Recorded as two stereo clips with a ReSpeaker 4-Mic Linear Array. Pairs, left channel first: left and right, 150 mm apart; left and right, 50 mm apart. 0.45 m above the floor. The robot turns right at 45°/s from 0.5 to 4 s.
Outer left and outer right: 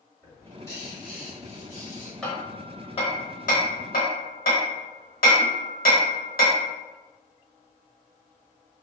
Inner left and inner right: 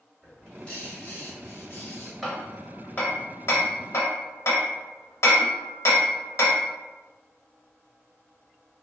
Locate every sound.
0.2 s a bird: 15° left, 1.3 m; by 2.1 s 85° left, 1.3 m
2.2 s hammering: 5° left (ahead or behind), 0.8 m; by 6.7 s 70° left (ahead or behind), 0.8 m